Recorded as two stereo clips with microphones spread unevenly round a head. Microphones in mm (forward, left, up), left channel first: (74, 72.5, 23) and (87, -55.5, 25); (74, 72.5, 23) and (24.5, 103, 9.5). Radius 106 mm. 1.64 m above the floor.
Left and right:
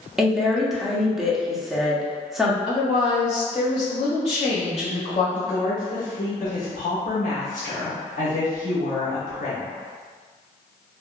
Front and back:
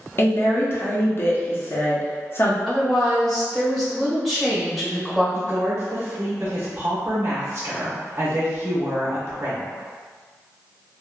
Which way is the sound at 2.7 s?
60° left.